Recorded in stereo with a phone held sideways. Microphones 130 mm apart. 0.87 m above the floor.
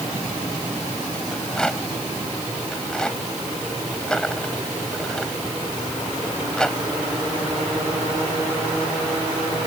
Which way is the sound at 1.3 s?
5° left (ahead or behind).